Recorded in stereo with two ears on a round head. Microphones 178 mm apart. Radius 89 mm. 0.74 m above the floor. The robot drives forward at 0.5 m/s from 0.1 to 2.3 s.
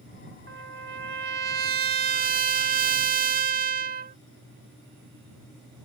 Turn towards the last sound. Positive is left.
turn(degrees=-45)  # may be behind; listen again after turning